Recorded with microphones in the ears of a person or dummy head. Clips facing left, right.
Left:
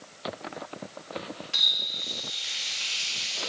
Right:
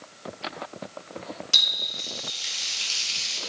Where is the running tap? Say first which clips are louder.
Right 3 dB; 65° right (ahead or behind), 1.5 m.